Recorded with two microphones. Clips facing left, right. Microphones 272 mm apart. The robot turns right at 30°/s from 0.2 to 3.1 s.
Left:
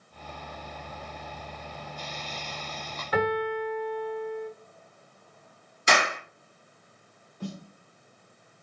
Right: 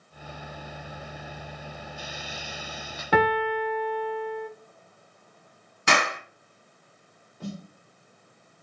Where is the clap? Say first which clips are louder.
Even; 65° right (ahead or behind), 1.8 m.